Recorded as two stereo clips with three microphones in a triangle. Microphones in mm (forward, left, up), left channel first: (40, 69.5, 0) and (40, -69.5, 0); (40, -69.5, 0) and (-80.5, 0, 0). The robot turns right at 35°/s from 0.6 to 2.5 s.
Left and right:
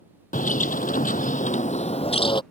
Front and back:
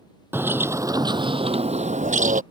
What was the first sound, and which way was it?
A bird, 75° left.